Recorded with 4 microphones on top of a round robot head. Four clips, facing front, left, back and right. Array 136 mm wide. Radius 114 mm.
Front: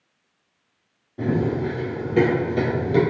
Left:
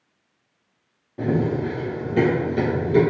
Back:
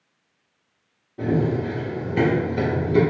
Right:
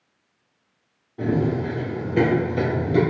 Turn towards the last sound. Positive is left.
turn(degrees=-5)